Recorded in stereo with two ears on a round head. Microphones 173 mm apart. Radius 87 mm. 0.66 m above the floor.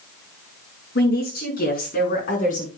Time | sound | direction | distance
0.9 | a woman speaking | 60° left (ahead or behind) | 6.5 m